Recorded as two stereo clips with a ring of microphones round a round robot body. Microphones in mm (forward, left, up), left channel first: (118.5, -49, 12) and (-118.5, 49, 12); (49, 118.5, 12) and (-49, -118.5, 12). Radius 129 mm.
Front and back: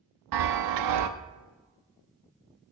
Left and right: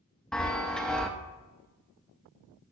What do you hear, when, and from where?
0.3 s a chime: 155° left, 0.6 m